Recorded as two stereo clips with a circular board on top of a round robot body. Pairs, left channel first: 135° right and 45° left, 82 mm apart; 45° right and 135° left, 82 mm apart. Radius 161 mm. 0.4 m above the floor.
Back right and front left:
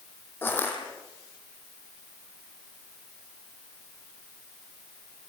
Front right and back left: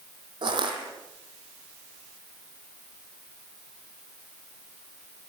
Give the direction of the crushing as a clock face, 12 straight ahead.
7 o'clock.